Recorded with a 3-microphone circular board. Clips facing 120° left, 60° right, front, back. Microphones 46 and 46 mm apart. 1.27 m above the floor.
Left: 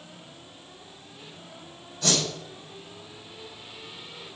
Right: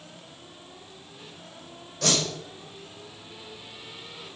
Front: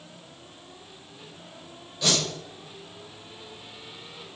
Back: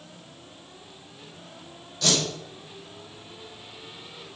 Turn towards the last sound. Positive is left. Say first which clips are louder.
# right 1 dB, back 1 dB
turn(degrees=-70)